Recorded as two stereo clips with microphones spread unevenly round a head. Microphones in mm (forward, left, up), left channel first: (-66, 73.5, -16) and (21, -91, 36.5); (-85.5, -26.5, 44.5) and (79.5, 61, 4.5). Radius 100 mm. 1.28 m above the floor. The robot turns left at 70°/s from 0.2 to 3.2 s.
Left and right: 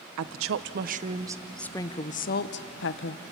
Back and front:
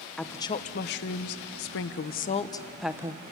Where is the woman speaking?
60° right, 0.8 m; by 3.3 s 90° left, 0.8 m.